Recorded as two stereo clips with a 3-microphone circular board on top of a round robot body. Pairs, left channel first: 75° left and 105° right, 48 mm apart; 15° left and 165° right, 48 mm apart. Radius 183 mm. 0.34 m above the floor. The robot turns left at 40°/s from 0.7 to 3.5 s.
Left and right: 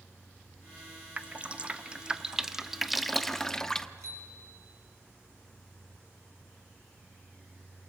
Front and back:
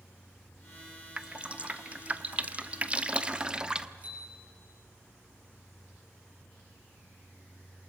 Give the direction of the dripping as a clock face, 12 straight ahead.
4 o'clock.